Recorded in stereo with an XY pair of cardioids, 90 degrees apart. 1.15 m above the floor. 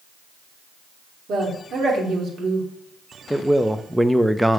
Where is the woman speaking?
65° right, 2.5 m.